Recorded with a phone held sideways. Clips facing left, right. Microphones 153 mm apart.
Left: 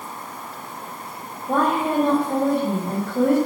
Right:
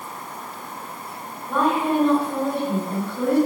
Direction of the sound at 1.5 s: 40° left (ahead or behind).